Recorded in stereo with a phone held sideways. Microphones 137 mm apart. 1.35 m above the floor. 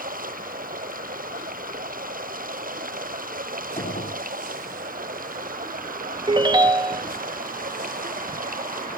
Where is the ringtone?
30° right (ahead or behind).